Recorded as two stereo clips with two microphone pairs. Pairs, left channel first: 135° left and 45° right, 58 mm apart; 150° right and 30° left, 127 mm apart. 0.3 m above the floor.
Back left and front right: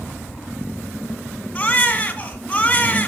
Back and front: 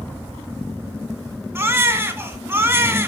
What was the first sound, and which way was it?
A baby crying, 85° left.